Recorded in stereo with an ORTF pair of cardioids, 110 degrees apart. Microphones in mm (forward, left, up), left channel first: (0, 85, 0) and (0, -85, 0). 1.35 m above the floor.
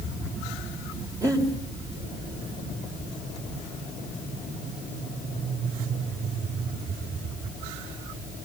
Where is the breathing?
20° right, 4 m.